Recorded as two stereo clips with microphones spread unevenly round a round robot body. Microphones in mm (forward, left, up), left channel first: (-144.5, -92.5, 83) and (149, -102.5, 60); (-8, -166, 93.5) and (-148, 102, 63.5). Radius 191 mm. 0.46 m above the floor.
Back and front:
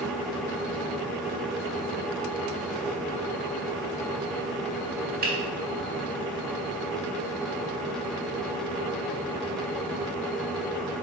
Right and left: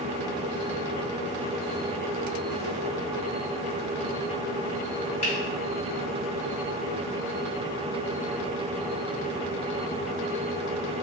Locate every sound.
5.2 s a finger snap: straight ahead, 1.4 m